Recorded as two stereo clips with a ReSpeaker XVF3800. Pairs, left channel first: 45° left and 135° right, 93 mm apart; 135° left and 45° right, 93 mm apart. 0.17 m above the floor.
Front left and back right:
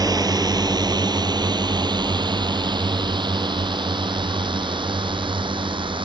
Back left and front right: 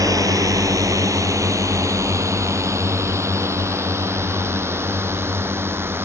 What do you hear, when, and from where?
0.0 s a drone: 95° right; by 6.0 s 110° right